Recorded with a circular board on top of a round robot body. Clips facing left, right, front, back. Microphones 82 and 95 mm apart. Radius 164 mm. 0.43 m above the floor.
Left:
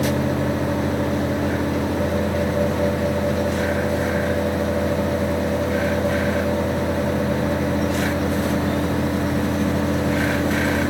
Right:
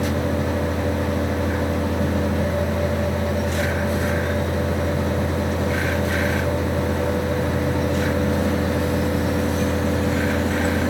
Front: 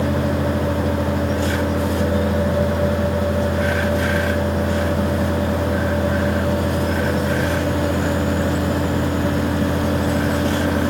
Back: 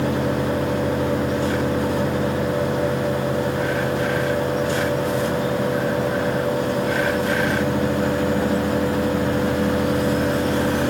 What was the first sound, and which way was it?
Only background noise.